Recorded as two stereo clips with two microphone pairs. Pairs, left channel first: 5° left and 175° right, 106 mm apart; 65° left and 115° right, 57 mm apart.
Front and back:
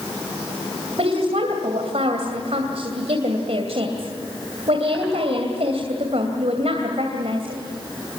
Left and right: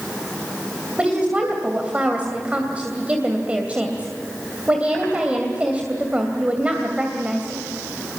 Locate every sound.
1.0 s a woman speaking: straight behind, 2.5 m